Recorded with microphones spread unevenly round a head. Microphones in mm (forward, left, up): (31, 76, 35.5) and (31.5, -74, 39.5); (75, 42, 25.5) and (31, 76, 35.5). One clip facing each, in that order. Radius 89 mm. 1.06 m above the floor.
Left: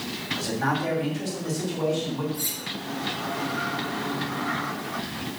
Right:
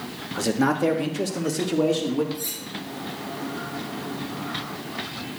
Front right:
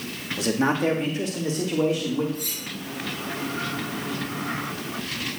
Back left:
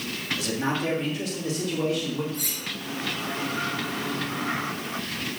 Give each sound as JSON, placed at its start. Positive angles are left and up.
{"t": 0.4, "sound": "a man speaking", "azimuth_deg": -75, "distance_m": 1.4}
{"t": 2.3, "sound": "cutlery clinking", "azimuth_deg": 155, "distance_m": 1.2}